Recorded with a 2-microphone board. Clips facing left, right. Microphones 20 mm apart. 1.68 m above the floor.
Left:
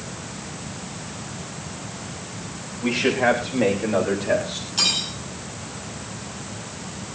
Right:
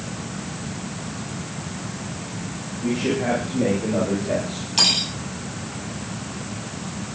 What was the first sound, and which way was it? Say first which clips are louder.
A man speaking: left 3 dB; 55° left (ahead or behind).